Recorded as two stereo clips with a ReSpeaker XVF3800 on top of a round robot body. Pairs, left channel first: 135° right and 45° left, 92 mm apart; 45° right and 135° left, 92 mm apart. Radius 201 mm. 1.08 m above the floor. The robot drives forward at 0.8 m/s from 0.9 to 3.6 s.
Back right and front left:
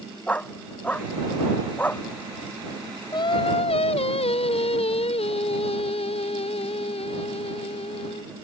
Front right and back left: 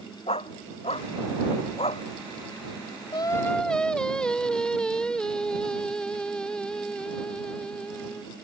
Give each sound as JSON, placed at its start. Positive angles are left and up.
{"t": 0.3, "sound": "a dog barking", "azimuth_deg": -60}
{"t": 3.1, "sound": "singing", "azimuth_deg": -85}